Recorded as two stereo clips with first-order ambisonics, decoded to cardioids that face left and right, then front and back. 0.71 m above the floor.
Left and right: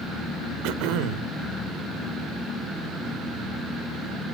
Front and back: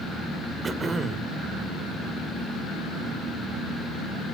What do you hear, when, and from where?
0.6 s throat clearing: 105° right, 1.9 m